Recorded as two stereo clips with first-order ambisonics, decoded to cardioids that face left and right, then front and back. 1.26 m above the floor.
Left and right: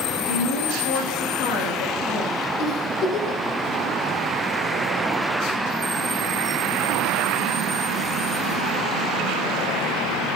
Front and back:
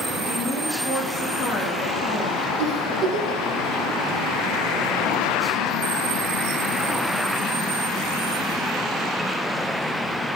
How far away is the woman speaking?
About 6.5 m.